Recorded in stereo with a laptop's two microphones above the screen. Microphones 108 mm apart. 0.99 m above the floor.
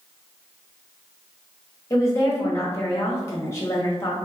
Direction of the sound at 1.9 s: 30° left (ahead or behind).